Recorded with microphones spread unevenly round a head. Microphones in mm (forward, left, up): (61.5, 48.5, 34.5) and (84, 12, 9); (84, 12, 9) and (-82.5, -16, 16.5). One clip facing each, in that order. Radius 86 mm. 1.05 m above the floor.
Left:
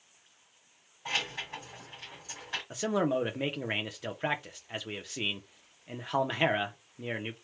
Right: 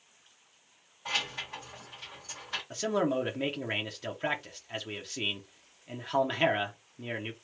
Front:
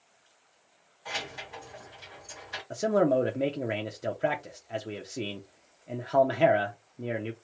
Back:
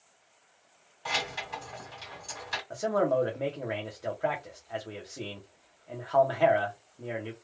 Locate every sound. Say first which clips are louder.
1.1 s keys jangling: even, back 4 dB; 160° right, 1.7 m
2.7 s a man speaking: even, front 3 dB; 5° right, 0.5 m